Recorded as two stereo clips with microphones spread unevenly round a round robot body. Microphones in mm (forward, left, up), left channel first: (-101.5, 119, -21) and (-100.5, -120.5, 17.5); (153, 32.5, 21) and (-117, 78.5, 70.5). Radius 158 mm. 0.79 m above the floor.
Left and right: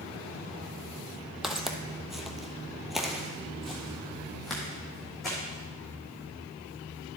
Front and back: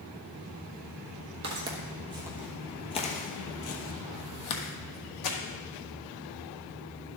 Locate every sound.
1.4 s footsteps: 170° right, 1.1 m; by 5.4 s 5° right, 1.6 m